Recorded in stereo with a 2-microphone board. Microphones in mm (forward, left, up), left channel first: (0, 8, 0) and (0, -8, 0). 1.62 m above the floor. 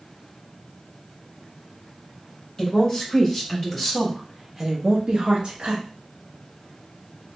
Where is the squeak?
I don't hear a squeak.